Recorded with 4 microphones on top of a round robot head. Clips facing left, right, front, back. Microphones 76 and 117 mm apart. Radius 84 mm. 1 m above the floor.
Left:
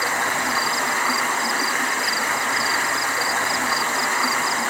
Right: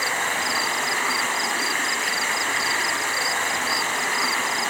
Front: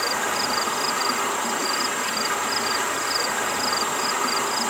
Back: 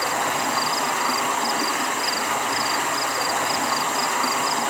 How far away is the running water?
About 5 m.